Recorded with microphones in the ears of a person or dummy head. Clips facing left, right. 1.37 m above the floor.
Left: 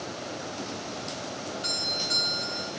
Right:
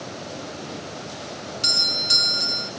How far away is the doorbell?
About 0.8 m.